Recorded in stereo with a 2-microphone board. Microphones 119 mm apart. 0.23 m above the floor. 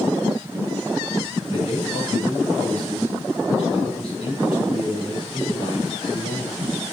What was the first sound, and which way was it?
A man speaking, 45° left (ahead or behind).